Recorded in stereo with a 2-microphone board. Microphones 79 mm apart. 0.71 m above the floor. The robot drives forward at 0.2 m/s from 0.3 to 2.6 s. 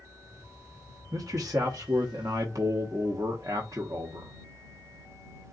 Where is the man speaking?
50° right (ahead or behind), 0.9 m.